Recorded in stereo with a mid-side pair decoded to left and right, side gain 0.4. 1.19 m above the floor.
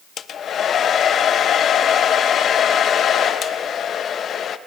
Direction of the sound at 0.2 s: 60° left.